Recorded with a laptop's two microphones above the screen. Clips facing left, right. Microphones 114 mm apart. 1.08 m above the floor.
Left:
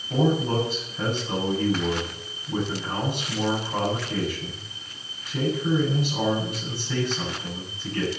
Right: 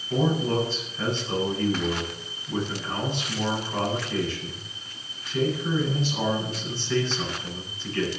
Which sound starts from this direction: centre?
A man speaking, at 0.1 s.